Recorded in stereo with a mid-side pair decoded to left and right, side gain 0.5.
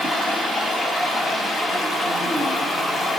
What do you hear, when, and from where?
0.0 s running water: 35° left, 4.5 m